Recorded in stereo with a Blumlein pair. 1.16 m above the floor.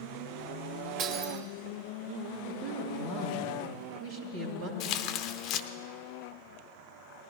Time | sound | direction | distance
1.0 | breaking glass | 35° right | 2.5 m
2.5 | a woman speaking | 60° right | 2.5 m
4.8 | tearing paper | 35° left | 0.7 m